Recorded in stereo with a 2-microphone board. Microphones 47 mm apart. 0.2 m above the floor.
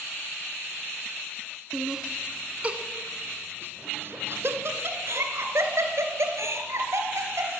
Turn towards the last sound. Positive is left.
turn(degrees=-75)  # may be behind; listen again after turning